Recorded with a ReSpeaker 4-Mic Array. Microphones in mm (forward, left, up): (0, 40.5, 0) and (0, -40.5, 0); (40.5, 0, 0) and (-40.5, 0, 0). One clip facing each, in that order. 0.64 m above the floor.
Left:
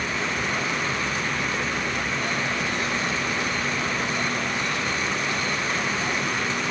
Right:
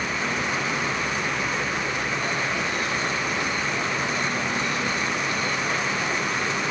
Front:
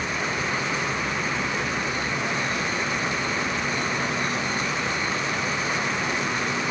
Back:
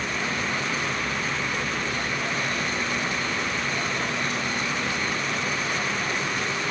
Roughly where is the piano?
No piano in this recording.